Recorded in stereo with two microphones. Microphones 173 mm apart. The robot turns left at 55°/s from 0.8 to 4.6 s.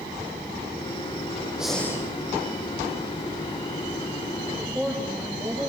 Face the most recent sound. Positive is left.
turn(degrees=0)  # may be behind; listen again after turning